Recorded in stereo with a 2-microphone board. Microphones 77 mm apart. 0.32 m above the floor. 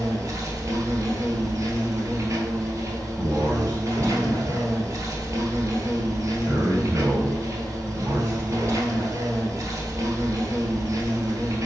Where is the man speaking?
35° right (ahead or behind), 1.9 m.